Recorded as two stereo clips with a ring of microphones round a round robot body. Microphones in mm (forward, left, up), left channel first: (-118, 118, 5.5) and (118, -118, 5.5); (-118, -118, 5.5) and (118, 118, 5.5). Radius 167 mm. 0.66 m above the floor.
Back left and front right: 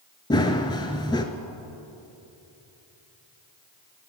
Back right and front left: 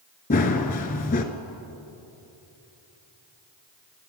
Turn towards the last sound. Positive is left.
turn(degrees=-160)